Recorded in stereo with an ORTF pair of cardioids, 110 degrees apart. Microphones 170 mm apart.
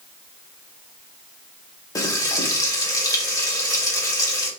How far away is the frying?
About 1.1 m.